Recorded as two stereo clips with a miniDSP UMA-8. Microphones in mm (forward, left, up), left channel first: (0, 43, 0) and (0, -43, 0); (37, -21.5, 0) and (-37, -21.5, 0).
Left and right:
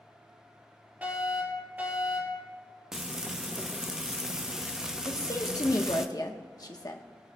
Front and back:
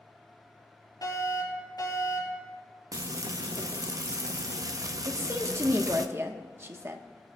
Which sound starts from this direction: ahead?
A fire alarm, at 1.0 s.